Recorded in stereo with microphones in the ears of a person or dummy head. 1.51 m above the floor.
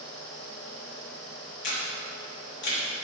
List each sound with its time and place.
1.6 s a camera shutter: 65° left (ahead or behind), 3 m